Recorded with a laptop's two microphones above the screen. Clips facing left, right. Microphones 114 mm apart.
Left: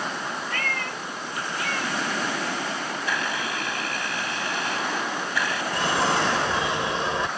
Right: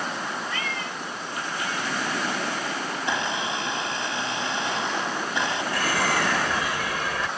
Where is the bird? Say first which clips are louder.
Left 3 dB; 25° left (ahead or behind).